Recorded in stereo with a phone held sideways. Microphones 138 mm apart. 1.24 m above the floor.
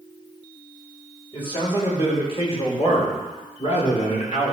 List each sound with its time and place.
1.3 s a man speaking: 35° left (ahead or behind), 5 m; by 4.5 s 60° left (ahead or behind), 3.5 m